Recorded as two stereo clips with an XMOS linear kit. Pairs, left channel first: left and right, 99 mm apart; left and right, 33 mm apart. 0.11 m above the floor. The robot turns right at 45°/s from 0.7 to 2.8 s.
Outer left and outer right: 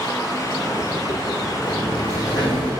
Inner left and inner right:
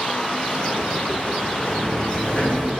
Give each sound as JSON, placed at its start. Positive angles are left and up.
{"t": 1.6, "sound": "a sliding door", "azimuth_deg": 10, "distance_m": 4.5}